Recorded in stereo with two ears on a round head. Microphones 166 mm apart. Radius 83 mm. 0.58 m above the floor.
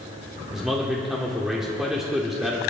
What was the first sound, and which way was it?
A man speaking, centre (ahead or behind).